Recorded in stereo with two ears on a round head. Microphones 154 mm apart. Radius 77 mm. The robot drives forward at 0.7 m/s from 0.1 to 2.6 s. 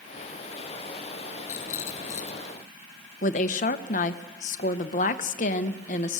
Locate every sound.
1.5 s a rattle: 50° left (ahead or behind), 2.5 m; by 2.5 s 40° left (ahead or behind), 3 m
3.2 s a woman speaking: 50° left (ahead or behind), 1.0 m